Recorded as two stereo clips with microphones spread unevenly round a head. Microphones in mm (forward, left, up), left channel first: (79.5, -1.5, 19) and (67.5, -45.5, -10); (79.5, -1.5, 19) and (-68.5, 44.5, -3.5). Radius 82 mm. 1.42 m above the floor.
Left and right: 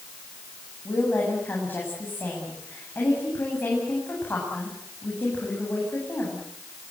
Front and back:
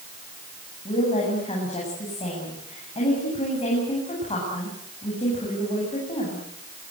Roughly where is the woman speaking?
Ahead left.